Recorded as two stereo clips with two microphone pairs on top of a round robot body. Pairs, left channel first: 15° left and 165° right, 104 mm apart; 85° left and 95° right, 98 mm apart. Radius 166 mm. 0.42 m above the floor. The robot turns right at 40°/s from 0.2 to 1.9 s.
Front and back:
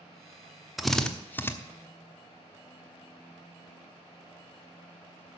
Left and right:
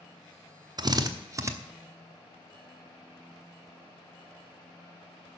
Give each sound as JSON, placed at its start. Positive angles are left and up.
{"t": 0.8, "sound": "a drill", "azimuth_deg": -80, "distance_m": 1.3}